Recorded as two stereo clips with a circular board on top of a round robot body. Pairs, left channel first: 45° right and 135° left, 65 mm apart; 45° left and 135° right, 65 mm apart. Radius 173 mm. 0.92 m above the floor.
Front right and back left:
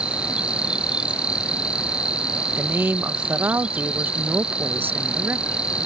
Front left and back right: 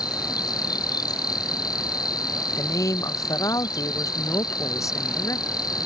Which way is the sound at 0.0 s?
60° left.